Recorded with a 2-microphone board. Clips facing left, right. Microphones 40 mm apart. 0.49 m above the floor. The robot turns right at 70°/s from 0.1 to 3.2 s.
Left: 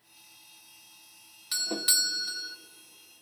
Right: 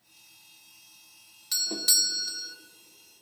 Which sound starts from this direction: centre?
A doorbell, at 1.5 s.